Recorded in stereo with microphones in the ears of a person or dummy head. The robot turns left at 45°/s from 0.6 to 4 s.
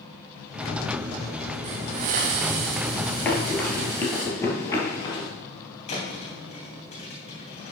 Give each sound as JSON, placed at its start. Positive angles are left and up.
{"t": 1.6, "sound": "a hiss", "azimuth_deg": -65, "distance_m": 0.8}
{"t": 3.2, "sound": "running footsteps", "side_deg": 15, "distance_m": 1.8}
{"t": 5.9, "sound": "a thud", "side_deg": 35, "distance_m": 3.0}